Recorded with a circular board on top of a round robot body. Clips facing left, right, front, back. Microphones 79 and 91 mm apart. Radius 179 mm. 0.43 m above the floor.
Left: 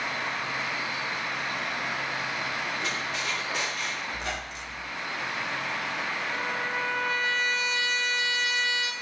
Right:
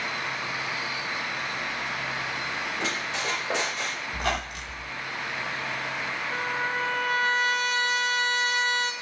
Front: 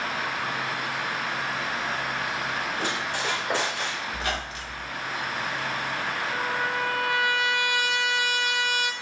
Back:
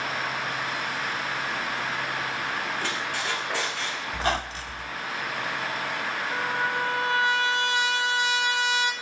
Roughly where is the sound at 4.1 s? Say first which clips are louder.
Right 5 dB, back 3 dB; behind right.